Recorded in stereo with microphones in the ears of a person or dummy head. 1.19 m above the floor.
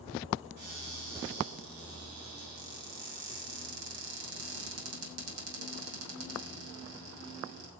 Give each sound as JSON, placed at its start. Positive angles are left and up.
{"t": 0.6, "sound": "a cupboard door", "side_deg": -85, "distance_m": 7.0}